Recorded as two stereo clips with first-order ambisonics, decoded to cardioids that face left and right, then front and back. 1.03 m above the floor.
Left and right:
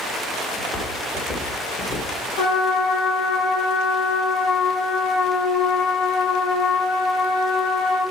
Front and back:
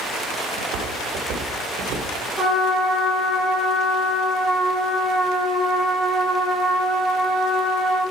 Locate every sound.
0.6 s footsteps: 155° left, 4.5 m; by 2.2 s 150° left, 4 m
2.4 s a trumpet: 105° left, 4.5 m